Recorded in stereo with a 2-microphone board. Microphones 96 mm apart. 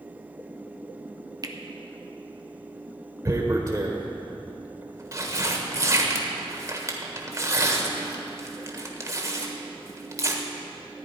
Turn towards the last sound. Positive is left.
turn(degrees=-35)  # may be behind; listen again after turning